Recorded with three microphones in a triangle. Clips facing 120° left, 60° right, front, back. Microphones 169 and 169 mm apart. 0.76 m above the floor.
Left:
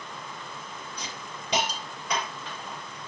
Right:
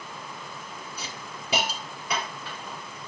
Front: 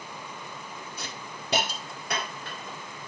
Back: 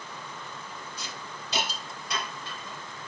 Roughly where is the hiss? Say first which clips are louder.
Even, front 1 dB; ahead left.